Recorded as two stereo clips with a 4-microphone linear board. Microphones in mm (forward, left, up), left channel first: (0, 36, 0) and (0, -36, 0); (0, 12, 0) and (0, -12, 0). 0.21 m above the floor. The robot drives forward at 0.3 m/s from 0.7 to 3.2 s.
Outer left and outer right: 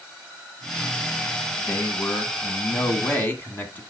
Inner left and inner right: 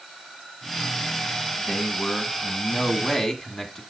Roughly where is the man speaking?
Left.